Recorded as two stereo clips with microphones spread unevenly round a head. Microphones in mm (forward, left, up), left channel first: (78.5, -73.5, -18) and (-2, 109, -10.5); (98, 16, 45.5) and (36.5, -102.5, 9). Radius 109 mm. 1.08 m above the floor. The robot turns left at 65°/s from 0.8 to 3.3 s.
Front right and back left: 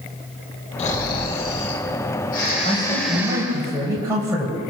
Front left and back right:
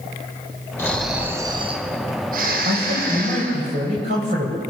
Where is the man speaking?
125° right, 5 m; by 4.6 s 170° right, 5 m.